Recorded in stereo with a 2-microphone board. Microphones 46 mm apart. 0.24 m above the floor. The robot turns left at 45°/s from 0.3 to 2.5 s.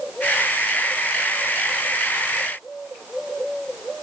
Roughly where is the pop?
I don't hear a pop.